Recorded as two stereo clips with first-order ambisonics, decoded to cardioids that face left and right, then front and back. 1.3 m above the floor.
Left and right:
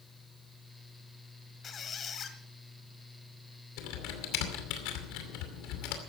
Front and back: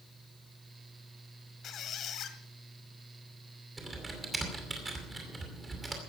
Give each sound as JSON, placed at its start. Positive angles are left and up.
{"t": 1.6, "sound": "a squeak", "azimuth_deg": 40, "distance_m": 1.5}
{"t": 3.8, "sound": "typing on a keyboard", "azimuth_deg": 105, "distance_m": 2.5}